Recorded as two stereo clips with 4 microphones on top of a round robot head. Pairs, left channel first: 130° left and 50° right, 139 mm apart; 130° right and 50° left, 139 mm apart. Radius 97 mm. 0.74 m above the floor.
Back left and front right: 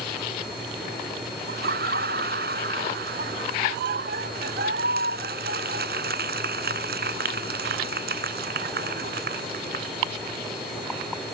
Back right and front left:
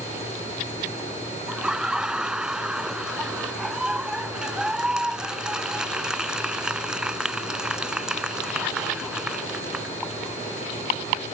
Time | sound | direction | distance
1.5 | laughter | 35° right | ?